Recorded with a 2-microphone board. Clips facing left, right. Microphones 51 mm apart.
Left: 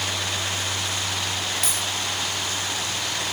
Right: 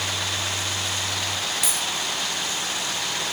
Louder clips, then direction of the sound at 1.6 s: Even; 5° right (ahead or behind).